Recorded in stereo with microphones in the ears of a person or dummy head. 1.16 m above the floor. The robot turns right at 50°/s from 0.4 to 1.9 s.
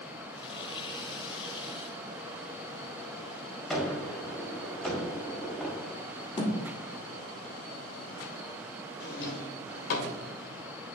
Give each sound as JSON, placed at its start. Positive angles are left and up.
{"t": 3.7, "sound": "a gunshot", "side_deg": 5, "distance_m": 2.5}
{"t": 6.4, "sound": "a thud", "side_deg": 25, "distance_m": 1.8}
{"t": 9.0, "sound": "a drawer", "side_deg": 60, "distance_m": 1.4}